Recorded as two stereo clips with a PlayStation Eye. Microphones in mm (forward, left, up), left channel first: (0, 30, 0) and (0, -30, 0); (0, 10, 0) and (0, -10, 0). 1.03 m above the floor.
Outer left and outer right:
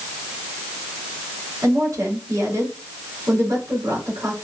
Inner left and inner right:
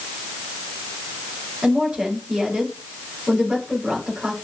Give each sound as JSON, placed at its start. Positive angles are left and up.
{"t": 1.6, "sound": "a woman speaking", "side_deg": -80, "distance_m": 4.0}